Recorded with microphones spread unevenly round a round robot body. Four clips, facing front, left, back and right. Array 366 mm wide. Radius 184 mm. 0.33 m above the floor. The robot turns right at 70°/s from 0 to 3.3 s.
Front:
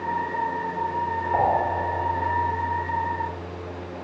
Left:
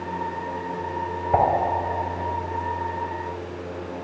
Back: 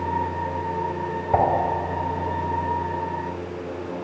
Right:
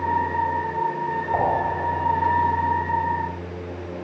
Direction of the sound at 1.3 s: 145° left.